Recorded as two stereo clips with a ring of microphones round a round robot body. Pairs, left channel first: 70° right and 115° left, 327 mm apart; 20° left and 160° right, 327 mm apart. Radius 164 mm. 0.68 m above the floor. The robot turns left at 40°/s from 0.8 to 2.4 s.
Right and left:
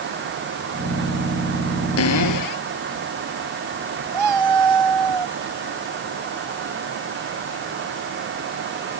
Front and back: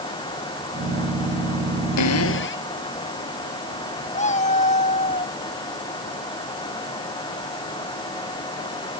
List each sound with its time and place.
2.0 s a cupboard door: 20° right; by 2.7 s 35° right
4.1 s a cat meowing: 90° left